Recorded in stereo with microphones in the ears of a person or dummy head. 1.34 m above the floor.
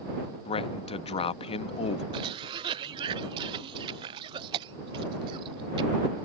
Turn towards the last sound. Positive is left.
turn(degrees=-15)  # may be behind; listen again after turning